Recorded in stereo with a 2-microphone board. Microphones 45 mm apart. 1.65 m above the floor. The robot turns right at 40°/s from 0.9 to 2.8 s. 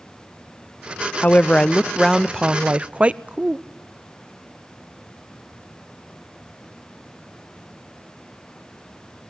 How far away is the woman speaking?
About 0.6 m.